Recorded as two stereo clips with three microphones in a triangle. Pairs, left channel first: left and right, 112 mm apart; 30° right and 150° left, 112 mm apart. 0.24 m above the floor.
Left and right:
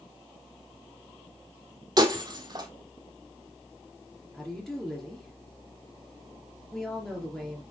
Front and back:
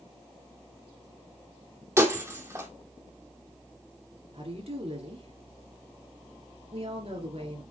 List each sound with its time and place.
2.0 s breaking glass: 145° right, 1.9 m
4.3 s a woman speaking: 175° left, 4 m